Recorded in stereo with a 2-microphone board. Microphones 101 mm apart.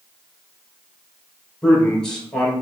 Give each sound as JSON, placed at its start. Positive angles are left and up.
{"t": 1.6, "sound": "a man speaking", "side_deg": 5, "distance_m": 1.5}